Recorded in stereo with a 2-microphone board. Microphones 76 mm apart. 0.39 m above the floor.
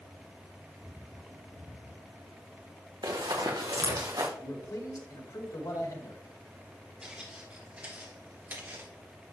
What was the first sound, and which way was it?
Running footsteps, 80° right.